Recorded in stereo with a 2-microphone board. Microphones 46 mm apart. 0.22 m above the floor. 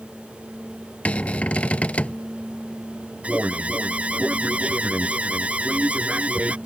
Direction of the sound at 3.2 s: 25° right (ahead or behind).